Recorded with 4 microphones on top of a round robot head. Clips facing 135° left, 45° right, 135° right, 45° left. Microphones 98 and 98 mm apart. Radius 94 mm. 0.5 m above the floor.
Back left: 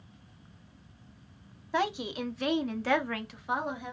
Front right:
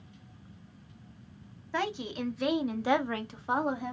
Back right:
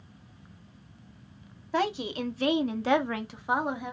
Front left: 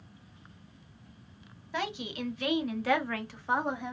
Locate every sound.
1.7 s a woman speaking: 160° right, 1.1 m; by 3.9 s 50° right, 1.2 m